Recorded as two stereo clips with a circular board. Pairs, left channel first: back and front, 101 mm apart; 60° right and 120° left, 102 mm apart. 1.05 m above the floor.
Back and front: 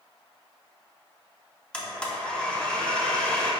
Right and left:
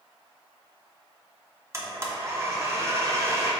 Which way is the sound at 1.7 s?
110° left.